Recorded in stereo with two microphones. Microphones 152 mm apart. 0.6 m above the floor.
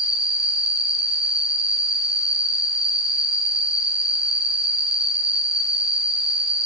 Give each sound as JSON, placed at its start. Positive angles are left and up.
{"t": 0.0, "sound": "an insect", "side_deg": 60, "distance_m": 1.7}